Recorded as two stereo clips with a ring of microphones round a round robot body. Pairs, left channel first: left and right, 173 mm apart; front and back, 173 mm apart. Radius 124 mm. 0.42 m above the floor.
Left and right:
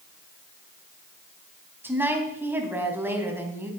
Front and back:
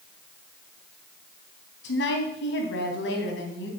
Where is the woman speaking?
10° right, 3 m.